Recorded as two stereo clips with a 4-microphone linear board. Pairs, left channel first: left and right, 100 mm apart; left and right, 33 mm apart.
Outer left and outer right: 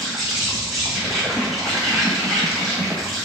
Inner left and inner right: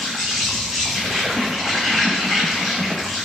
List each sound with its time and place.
0.0 s an insect: centre (ahead or behind), 1.3 m